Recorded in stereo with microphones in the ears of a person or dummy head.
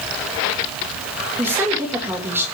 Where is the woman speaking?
15° right (ahead or behind), 3 m.